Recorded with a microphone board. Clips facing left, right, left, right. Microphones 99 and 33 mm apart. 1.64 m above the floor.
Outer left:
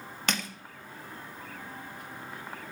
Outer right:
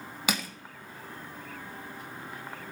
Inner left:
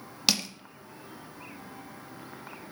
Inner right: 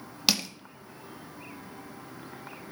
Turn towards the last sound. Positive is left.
turn(degrees=-5)  # may be behind; listen again after turning